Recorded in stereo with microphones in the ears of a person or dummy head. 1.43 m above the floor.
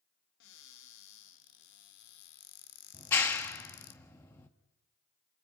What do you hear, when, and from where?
0.4 s a cupboard door: 65° left (ahead or behind), 1.9 m
2.9 s a clap: 10° left (ahead or behind), 1.4 m